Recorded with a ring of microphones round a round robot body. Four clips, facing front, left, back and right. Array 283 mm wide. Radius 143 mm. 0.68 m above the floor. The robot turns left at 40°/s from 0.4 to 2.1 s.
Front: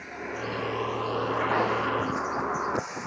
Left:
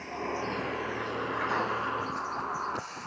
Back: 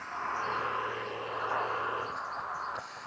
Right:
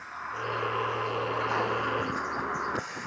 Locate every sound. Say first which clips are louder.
0.0 s a vehicle: left 2 dB, even; 55° left; by 3.1 s 15° right